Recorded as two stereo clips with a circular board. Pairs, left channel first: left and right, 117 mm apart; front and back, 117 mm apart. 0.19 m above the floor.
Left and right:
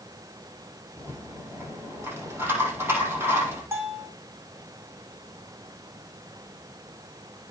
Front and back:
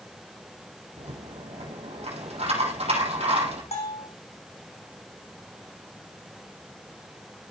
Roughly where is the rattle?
Behind.